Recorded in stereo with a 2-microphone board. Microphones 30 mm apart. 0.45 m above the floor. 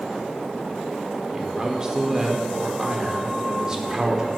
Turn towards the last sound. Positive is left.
turn(degrees=-20)  # may be behind; listen again after turning